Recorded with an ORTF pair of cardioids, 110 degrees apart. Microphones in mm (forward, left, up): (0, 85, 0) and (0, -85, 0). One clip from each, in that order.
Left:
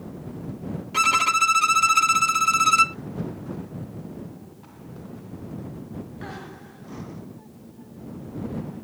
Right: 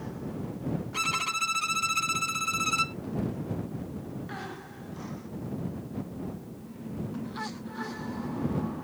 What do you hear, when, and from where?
0.9 s a violin: 40° left